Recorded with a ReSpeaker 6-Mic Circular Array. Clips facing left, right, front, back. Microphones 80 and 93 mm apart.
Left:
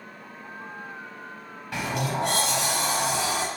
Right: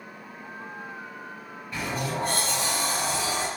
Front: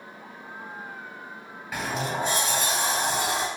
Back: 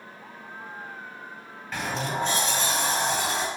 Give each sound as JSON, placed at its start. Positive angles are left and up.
{"t": 1.7, "sound": "a sliding door", "azimuth_deg": 80, "distance_m": 0.6}